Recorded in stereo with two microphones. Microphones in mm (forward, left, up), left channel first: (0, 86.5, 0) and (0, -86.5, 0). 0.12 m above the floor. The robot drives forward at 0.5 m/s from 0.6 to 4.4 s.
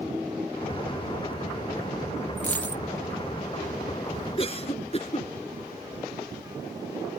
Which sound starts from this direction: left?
A cough, at 4.4 s.